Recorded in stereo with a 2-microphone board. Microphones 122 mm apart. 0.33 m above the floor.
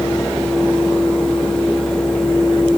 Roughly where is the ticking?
I don't hear ticking.